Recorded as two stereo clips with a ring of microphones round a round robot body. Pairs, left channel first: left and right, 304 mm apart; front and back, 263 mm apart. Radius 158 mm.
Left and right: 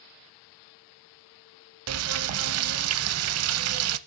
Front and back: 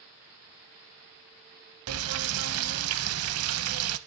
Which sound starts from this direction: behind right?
Frying, at 1.9 s.